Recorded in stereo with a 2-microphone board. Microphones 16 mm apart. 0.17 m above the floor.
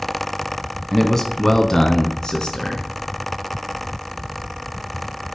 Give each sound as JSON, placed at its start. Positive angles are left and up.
{"t": 0.9, "sound": "a man speaking", "side_deg": 15, "distance_m": 1.0}